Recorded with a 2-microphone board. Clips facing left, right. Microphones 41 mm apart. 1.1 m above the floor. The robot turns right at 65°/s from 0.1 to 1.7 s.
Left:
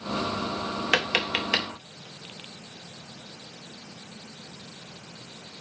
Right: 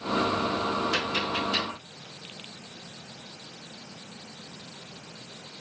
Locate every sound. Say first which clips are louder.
0.9 s tapping: left 3 dB; 60° left (ahead or behind), 1.1 m; by 1.7 s 70° left (ahead or behind), 1.1 m